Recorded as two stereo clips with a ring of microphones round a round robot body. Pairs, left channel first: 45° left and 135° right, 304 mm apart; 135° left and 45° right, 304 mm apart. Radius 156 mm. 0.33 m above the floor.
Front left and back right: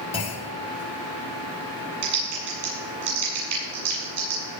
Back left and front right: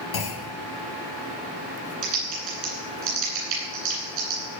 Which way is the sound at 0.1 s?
115° left.